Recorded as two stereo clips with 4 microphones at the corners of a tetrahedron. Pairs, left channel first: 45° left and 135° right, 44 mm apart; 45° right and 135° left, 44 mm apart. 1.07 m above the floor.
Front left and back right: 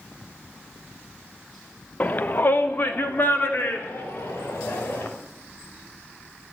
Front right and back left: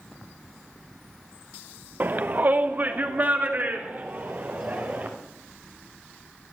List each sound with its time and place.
2.0 s a shout: 95° left, 0.9 m; by 5.1 s 80° left, 5.5 m